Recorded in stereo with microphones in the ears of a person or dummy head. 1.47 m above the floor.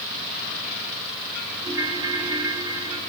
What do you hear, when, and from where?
1.6 s a ringtone: 20° right (ahead or behind), 2.5 m